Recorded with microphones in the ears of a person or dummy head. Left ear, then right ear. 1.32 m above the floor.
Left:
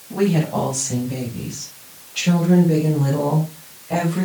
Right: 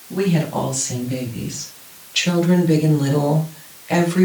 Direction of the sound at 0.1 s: 5° right (ahead or behind).